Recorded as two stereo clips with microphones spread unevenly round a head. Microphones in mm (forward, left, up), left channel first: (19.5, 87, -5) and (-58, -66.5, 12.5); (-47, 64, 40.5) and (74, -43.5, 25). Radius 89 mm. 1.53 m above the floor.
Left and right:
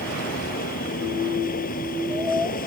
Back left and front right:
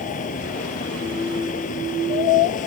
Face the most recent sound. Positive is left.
turn(degrees=100)